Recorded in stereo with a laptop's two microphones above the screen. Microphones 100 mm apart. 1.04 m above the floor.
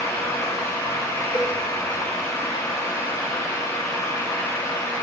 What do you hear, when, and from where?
0.0 s a fan: 30° left (ahead or behind), 4 m
1.3 s a cowbell: 25° left (ahead or behind), 2.5 m